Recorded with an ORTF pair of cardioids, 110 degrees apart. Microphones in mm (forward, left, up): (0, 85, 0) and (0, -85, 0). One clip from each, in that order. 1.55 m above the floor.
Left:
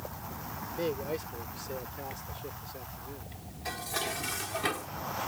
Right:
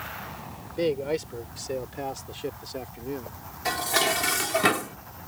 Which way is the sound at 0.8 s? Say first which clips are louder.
Right 8 dB; 40° right.